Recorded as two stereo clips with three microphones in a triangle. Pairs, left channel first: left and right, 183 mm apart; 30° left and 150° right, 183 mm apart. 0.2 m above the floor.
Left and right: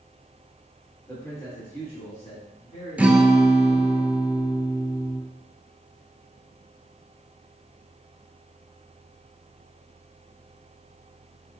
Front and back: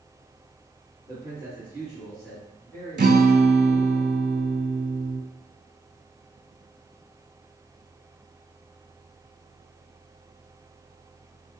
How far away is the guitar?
About 0.5 m.